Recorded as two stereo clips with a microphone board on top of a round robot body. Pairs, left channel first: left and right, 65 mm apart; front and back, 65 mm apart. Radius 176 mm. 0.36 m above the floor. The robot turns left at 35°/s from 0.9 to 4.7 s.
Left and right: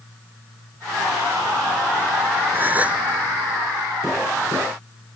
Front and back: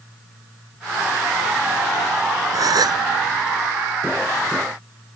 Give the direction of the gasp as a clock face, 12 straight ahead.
5 o'clock.